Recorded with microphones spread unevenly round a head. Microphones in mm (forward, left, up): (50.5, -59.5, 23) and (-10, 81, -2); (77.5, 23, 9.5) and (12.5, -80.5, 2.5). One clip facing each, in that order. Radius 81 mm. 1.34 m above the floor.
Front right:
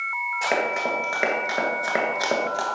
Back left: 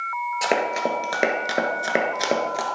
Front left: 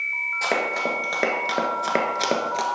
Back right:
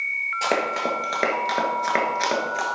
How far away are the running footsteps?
About 1.8 m.